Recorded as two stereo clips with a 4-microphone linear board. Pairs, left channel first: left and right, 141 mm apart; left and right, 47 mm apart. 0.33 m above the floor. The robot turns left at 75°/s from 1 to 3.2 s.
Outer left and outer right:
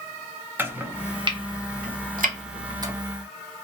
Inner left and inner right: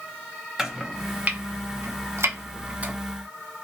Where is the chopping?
15° right (ahead or behind), 0.6 m; by 2.9 s 20° right (ahead or behind), 0.6 m.